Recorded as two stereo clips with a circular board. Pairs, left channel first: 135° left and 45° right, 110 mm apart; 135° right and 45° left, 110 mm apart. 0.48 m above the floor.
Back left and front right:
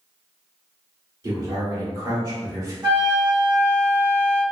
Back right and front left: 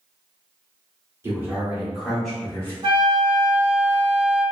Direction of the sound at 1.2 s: 5° right.